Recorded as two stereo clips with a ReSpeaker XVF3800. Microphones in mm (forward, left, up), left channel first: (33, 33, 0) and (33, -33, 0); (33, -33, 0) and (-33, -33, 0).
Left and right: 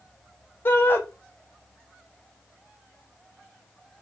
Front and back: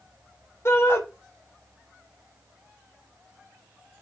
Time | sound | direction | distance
0.7 | a shout | 40° left | 1.8 m